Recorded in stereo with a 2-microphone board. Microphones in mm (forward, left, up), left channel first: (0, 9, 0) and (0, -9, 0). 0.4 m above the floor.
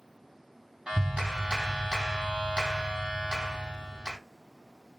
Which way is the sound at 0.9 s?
65° right (ahead or behind).